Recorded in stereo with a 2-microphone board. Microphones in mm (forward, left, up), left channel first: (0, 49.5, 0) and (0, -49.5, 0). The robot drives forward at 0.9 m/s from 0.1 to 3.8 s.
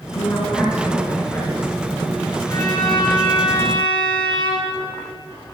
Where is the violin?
40° left (ahead or behind), 2.5 m; by 4.8 s 55° left (ahead or behind), 1.9 m.